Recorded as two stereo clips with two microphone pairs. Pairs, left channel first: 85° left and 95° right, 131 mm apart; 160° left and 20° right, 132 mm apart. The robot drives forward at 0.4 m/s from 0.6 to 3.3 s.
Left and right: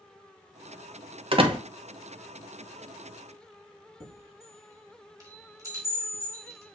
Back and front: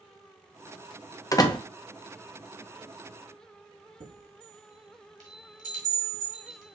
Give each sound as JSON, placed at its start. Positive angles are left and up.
{"t": 1.3, "sound": "a door slam", "azimuth_deg": -135, "distance_m": 0.6}
{"t": 4.0, "sound": "a chime", "azimuth_deg": -30, "distance_m": 1.6}